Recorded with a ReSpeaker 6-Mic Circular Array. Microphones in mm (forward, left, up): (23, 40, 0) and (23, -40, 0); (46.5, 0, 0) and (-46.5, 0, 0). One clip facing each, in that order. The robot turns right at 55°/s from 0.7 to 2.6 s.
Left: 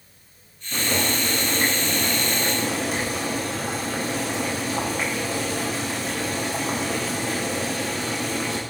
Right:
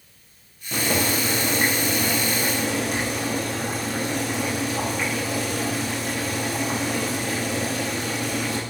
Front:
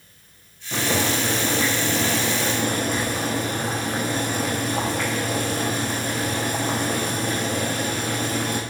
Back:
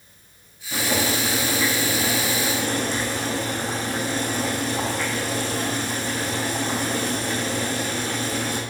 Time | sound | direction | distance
0.7 | boiling | 70° right | 3.5 m